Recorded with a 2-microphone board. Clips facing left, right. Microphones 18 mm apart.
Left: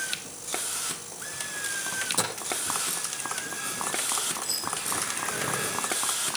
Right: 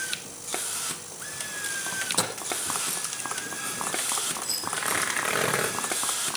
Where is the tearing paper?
80° right, 6 m.